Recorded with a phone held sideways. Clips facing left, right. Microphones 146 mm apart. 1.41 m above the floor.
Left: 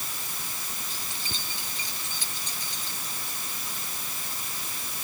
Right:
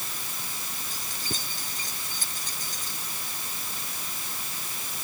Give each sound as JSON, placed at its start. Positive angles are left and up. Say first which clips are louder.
{"t": 0.9, "sound": "keys jangling", "louder": "right 3 dB", "side_deg": -45}